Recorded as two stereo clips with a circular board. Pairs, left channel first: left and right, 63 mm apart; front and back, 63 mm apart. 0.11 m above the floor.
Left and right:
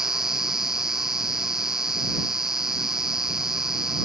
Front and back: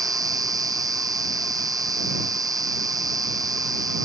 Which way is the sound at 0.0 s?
175° right.